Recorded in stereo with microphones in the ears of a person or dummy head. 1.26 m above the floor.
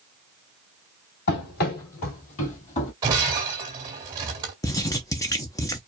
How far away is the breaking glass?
About 1.9 m.